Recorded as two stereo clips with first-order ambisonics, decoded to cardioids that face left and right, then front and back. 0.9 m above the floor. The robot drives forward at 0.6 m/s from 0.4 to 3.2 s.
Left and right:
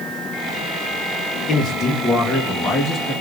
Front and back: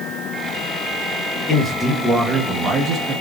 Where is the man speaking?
45° left, 0.9 m; by 3.1 s 160° left, 1.1 m.